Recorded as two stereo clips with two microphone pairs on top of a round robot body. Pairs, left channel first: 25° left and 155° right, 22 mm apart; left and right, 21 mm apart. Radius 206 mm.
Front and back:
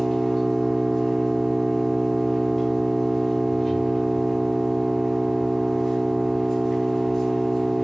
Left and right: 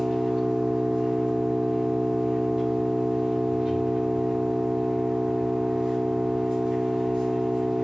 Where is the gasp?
No gasp in this recording.